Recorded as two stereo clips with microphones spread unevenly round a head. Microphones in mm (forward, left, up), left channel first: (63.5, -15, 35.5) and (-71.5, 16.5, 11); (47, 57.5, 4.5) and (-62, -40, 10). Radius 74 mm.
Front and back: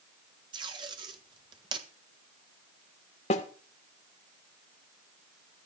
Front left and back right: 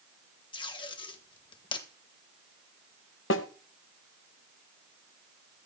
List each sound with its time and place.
0.5 s tape being pulled: 105° left, 1.5 m
3.3 s a snare drum: 35° left, 1.3 m